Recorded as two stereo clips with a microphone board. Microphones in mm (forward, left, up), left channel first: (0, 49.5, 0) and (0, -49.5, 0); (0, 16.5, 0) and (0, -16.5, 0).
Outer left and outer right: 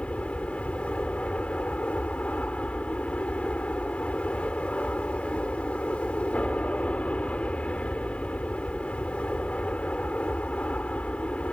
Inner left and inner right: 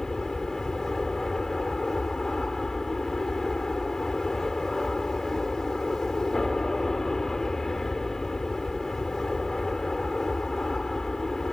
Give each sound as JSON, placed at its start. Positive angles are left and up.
{"t": 0.0, "sound": "an aircraft", "side_deg": 10}